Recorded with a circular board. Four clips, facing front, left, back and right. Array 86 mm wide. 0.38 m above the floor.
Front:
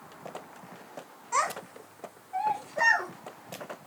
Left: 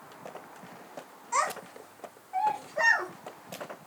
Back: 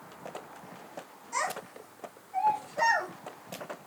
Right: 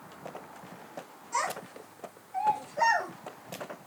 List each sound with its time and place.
1.3 s a child speaking: 35° left, 1.7 m; by 3.1 s 65° left, 3 m